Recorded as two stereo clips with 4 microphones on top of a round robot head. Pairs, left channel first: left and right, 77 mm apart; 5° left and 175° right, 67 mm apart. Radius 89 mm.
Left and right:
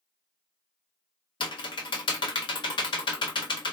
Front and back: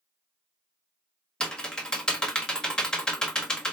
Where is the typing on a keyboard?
85° left, 0.9 m.